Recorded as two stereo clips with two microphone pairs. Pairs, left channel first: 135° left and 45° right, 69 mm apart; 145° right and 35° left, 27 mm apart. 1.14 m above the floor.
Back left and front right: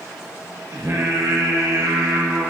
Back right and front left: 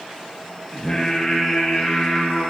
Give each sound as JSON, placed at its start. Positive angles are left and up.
{"t": 0.7, "sound": "singing", "azimuth_deg": -75, "distance_m": 1.5}